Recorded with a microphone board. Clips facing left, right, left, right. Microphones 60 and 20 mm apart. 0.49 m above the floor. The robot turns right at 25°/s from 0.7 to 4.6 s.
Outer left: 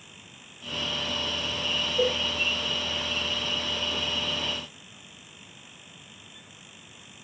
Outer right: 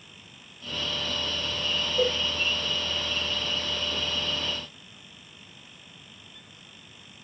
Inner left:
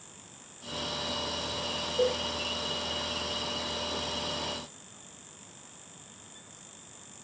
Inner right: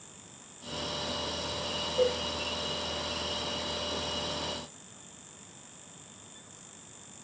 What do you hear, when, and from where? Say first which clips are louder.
2.0 s a cowbell: even, even; 75° right (ahead or behind), 0.6 m